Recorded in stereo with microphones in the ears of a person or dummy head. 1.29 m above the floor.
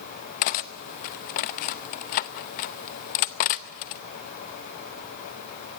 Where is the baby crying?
I don't hear a baby crying.